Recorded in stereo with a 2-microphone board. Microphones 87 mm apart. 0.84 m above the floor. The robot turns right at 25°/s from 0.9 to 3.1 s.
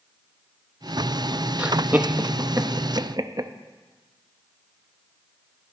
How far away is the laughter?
About 0.7 m.